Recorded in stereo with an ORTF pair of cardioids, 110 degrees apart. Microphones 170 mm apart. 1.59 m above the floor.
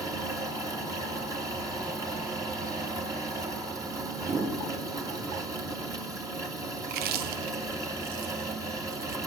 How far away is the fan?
About 2.5 m.